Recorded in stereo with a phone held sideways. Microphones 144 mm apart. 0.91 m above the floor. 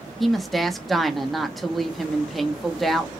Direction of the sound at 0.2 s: Centre (ahead or behind).